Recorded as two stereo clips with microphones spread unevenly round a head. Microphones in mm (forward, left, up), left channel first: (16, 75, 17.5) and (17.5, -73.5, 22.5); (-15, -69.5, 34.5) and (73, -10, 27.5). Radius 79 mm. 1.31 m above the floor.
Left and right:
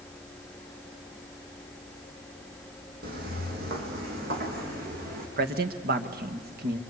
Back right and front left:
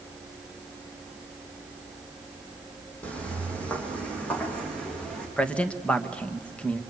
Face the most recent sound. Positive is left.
turn(degrees=-65)